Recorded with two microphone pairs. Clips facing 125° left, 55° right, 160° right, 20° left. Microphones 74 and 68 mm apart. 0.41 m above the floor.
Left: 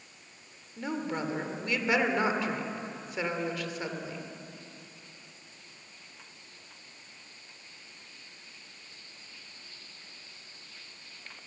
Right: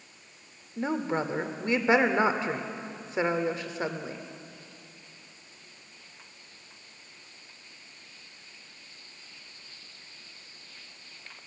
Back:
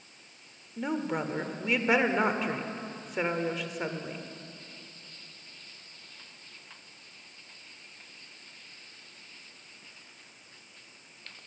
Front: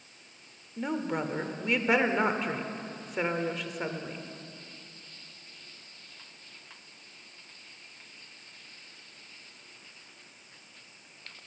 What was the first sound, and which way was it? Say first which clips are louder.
A woman speaking: right 4 dB, even; 75° right.